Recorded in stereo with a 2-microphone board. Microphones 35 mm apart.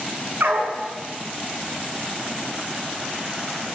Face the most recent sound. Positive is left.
turn(degrees=-75)  # may be behind; listen again after turning